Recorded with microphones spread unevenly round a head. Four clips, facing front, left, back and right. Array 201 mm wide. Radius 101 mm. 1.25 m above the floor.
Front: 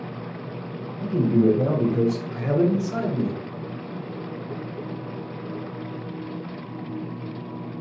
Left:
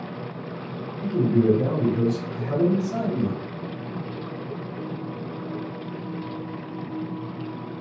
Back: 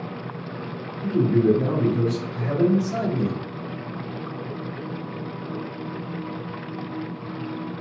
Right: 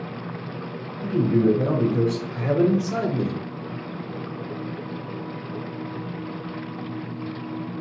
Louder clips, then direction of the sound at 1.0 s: Even, even; straight ahead.